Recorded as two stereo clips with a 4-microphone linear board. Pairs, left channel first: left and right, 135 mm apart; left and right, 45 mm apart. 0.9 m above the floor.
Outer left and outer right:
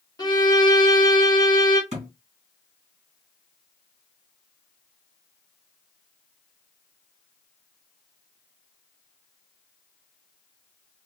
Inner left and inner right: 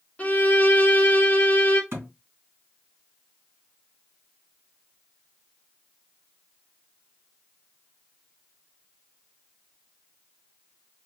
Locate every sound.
0.2 s a violin: 30° left (ahead or behind), 0.8 m
1.9 s a thud: 50° right (ahead or behind), 2 m